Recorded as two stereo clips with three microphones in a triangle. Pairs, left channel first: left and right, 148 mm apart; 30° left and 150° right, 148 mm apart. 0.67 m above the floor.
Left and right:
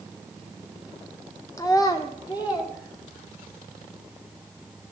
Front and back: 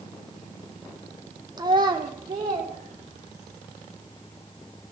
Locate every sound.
1.6 s a child speaking: 155° left, 0.7 m; by 3.6 s 150° left, 3.5 m